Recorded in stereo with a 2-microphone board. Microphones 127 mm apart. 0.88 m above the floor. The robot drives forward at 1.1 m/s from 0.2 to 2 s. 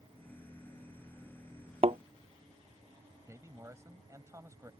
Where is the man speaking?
25° right (ahead or behind).